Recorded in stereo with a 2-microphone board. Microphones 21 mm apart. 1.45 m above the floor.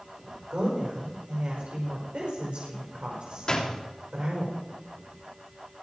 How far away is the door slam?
About 2.5 m.